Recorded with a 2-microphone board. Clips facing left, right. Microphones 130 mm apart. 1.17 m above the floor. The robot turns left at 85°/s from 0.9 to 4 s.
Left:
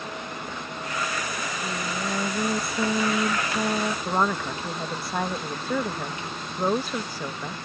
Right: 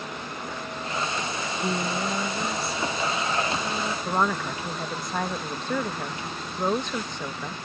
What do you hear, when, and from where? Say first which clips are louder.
1.3 s singing: right 3 dB; 120° right; by 4.0 s 20° left
4.0 s a woman speaking: right 2 dB; 5° left (ahead or behind)